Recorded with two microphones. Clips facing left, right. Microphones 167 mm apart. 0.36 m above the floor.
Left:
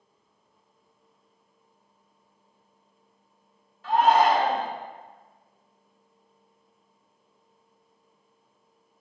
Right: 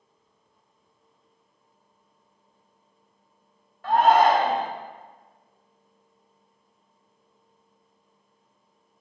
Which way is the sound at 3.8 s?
60° right (ahead or behind).